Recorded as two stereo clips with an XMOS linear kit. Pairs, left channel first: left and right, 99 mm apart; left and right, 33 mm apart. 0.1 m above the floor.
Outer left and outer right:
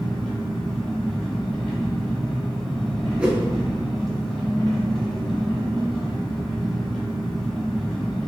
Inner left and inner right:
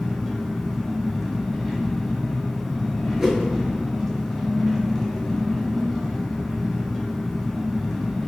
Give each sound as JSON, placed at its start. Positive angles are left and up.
{"t": 0.0, "sound": "an engine running", "side_deg": 5, "distance_m": 1.2}
{"t": 3.2, "sound": "a whoosh", "side_deg": -10, "distance_m": 0.6}